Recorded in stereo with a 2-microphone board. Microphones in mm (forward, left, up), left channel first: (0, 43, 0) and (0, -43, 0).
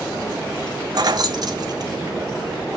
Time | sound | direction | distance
0.9 | keys jangling | 50° right (ahead or behind) | 0.8 m